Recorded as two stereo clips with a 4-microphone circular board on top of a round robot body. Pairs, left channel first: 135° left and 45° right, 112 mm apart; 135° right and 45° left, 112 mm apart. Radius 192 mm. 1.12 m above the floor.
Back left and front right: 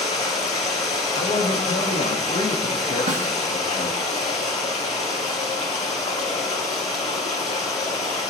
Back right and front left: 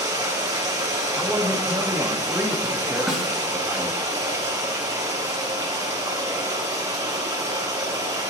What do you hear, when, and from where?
0.0 s running water: 105° left, 3.5 m
1.1 s a man speaking: 135° left, 1.8 m
3.1 s a snare drum: 40° right, 3 m